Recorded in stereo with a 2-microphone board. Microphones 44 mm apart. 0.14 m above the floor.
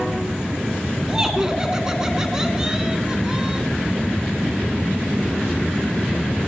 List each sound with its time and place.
1.1 s laughter: 15° right (ahead or behind), 1.2 m